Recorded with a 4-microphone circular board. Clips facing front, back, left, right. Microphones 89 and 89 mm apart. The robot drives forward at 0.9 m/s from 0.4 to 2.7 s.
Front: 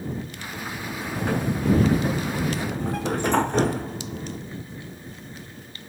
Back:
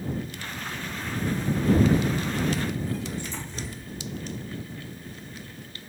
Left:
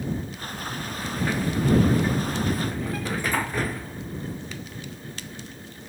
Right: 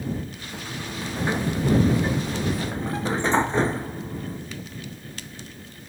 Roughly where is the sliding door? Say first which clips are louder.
Front 4 dB, even; ahead right.